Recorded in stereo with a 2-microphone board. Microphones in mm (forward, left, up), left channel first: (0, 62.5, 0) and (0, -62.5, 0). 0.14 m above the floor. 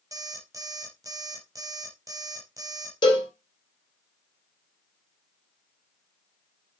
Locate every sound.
0.1 s an alarm clock: 25° right (ahead or behind), 2.5 m
3.0 s a cowbell: 40° left (ahead or behind), 3 m